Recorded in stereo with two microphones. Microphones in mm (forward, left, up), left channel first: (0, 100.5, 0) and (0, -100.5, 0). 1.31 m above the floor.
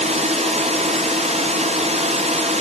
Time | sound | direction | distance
0.0 | a drone | 35° right (ahead or behind) | ?